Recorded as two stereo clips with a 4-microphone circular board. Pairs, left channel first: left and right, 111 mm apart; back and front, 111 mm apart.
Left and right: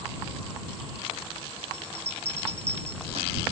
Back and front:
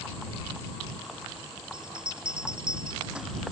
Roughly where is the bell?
Right.